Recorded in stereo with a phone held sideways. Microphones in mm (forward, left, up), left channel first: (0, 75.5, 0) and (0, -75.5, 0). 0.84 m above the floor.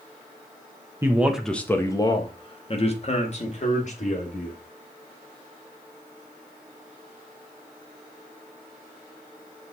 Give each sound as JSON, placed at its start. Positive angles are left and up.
{"t": 1.0, "sound": "a man speaking", "side_deg": -20, "distance_m": 1.0}